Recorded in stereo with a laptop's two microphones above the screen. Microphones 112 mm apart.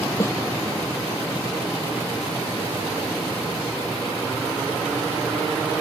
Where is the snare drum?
25° left (ahead or behind).